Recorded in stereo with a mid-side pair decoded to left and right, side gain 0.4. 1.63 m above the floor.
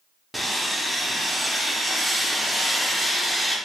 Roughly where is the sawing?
Ahead.